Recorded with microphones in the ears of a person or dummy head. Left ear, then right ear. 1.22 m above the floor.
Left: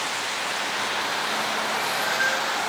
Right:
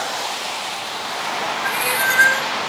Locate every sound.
1.6 s a cat meowing: 75° right (ahead or behind), 2.0 m